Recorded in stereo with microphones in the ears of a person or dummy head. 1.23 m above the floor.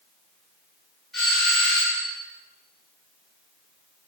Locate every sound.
1.1 s a doorbell: centre (ahead or behind), 7 m